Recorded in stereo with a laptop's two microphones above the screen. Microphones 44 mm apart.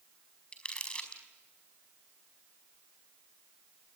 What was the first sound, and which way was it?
Crumpling, 25° left (ahead or behind).